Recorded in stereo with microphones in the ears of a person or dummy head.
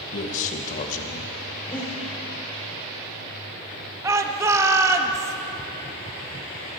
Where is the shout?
15° right (ahead or behind), 1.0 m.